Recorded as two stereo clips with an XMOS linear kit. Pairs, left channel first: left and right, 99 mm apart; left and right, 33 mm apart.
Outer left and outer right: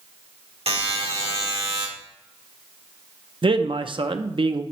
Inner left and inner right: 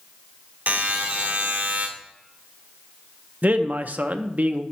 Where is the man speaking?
55° right (ahead or behind), 0.5 m.